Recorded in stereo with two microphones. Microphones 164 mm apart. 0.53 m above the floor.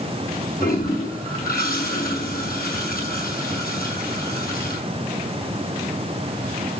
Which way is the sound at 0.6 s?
65° left (ahead or behind).